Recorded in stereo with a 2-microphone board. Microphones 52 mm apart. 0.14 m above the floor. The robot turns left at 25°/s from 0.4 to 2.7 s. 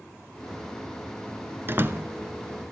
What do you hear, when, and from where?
1.7 s a door slam: 45° right (ahead or behind), 1.1 m; by 2.0 s 40° right (ahead or behind), 1.1 m